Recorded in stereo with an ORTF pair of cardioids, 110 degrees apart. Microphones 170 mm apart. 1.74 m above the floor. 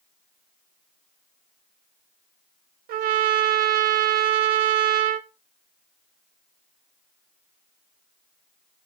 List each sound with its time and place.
2.9 s a trumpet: 65° right, 0.8 m